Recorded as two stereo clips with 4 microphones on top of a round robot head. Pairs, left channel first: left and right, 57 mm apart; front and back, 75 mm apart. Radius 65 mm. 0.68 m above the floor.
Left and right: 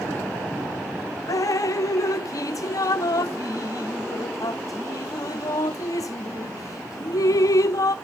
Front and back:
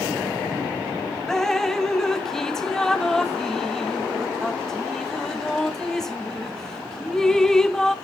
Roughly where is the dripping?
Left.